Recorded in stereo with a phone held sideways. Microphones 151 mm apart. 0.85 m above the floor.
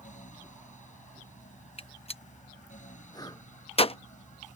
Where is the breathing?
25° left (ahead or behind).